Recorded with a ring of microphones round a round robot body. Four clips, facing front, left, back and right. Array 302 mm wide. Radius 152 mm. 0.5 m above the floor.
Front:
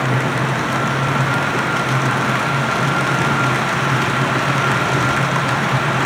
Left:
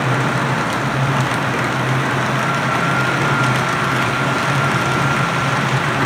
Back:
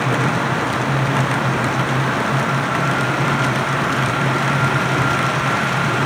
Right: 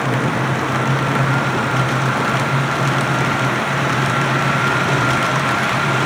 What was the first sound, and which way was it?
Only background noise.